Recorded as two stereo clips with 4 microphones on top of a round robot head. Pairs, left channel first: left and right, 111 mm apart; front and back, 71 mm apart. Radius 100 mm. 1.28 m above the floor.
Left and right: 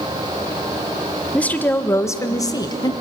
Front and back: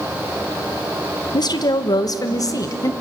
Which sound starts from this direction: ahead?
A woman speaking, at 1.3 s.